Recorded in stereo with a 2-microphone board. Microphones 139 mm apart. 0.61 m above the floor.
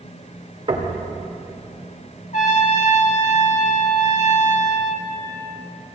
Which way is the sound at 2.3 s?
60° left (ahead or behind).